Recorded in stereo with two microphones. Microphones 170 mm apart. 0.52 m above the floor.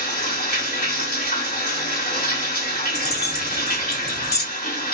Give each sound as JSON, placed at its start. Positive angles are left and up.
{"t": 0.0, "sound": "running water", "side_deg": 60, "distance_m": 1.9}
{"t": 2.9, "sound": "keys jangling", "side_deg": 75, "distance_m": 1.9}